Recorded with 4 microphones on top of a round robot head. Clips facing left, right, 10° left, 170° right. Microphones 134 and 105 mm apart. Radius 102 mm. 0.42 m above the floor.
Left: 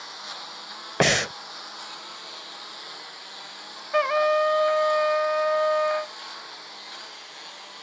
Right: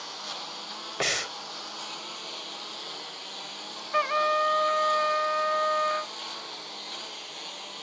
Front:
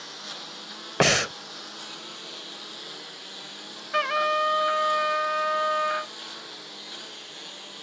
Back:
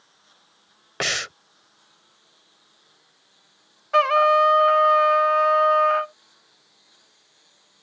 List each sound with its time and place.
0.0 s a lawn mower: 15° right; by 7.8 s 20° right
1.0 s breathing: 55° left
3.9 s a trumpet: 145° left